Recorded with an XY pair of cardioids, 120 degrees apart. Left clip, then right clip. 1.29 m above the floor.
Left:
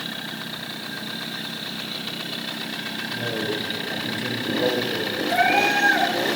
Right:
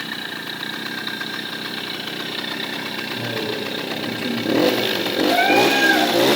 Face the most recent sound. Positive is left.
turn(degrees=-10)